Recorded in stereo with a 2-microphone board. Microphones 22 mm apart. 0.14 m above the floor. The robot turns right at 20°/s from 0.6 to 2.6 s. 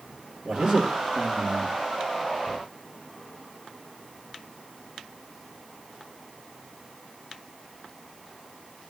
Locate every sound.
0.5 s a man speaking: 40° right (ahead or behind), 3.5 m; by 1.8 s 20° right (ahead or behind), 3.5 m